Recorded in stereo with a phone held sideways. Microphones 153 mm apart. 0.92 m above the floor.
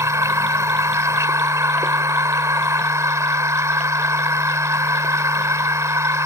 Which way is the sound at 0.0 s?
20° right (ahead or behind).